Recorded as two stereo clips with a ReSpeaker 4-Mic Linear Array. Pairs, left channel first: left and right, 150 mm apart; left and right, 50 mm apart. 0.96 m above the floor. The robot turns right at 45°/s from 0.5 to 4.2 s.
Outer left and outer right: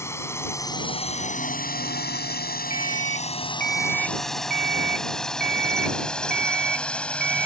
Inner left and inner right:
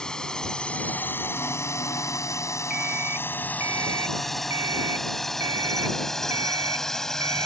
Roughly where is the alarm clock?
Behind.